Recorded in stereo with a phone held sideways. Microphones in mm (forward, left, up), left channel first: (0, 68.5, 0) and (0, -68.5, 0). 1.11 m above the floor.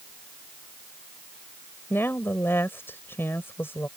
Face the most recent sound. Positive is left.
turn(degrees=15)  # may be behind; listen again after turning